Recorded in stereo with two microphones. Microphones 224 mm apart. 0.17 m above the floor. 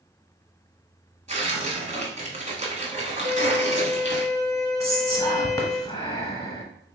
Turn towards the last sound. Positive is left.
turn(degrees=15)  # may be behind; listen again after turning